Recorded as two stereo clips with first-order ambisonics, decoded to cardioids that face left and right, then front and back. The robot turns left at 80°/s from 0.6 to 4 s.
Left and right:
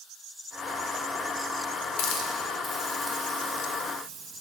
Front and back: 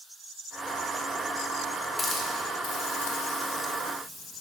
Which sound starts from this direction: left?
A hiss, at 2.0 s.